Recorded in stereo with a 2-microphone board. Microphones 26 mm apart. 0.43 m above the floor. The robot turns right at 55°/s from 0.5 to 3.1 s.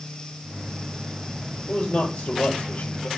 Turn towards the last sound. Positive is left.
turn(degrees=135)